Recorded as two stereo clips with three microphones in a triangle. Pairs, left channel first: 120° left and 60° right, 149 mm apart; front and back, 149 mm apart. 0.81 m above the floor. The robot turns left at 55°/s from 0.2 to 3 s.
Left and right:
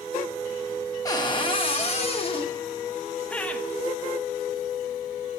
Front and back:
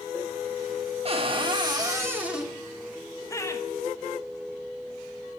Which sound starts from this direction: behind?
A cupboard door, at 1.1 s.